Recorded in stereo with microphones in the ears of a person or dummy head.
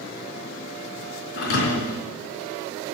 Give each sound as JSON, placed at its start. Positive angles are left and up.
{"t": 1.4, "sound": "a thud", "side_deg": 65, "distance_m": 4.0}